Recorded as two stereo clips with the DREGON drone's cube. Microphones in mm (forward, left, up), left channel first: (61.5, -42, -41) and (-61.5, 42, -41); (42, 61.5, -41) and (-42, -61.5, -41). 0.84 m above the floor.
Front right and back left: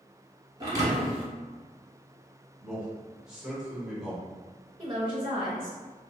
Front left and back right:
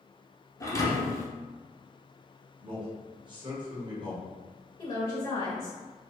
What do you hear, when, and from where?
0.6 s a thud: 105° left, 0.9 m
2.6 s a man speaking: 135° right, 0.8 m
4.8 s a woman speaking: 105° left, 0.5 m